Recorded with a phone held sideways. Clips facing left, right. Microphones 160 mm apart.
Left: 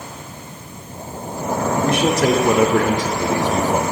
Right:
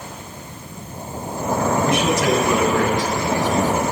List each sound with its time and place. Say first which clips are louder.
1.8 s a man speaking: left 5 dB; 55° left (ahead or behind), 2.5 m; by 3.8 s 80° left, 2.5 m